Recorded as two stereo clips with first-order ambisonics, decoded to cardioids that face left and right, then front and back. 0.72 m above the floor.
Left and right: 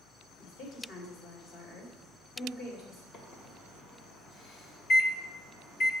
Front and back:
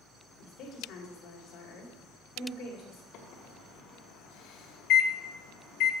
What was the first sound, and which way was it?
A woman speaking, 40° left.